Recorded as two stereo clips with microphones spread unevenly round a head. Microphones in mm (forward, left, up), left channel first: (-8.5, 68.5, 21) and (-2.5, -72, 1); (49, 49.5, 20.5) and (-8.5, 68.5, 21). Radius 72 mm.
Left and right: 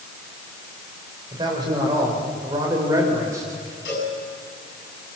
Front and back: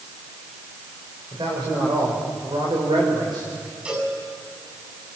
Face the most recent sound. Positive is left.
turn(degrees=90)